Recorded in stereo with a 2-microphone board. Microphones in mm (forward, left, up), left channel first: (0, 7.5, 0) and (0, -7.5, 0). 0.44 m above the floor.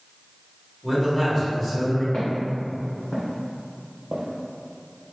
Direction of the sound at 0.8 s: 5° left (ahead or behind).